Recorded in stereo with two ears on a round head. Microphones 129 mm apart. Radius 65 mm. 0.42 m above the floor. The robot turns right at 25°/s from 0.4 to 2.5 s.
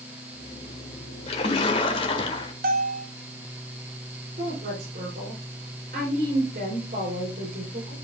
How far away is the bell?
About 2.0 m.